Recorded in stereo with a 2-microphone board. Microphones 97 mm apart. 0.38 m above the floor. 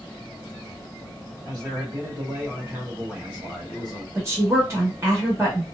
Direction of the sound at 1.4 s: 45° right (ahead or behind).